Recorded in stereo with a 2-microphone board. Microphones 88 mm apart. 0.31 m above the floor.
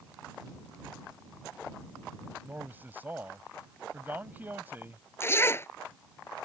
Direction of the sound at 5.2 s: 30° left (ahead or behind).